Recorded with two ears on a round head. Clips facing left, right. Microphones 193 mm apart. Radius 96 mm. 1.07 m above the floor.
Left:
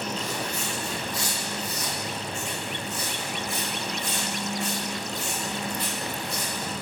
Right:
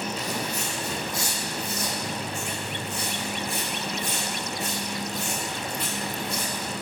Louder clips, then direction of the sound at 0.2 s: Right 1 dB; 35° right (ahead or behind).